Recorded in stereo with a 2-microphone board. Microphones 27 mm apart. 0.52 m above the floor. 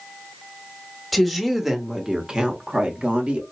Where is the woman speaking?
Centre (ahead or behind), 1.3 m; by 3.4 s 55° right (ahead or behind), 1.4 m.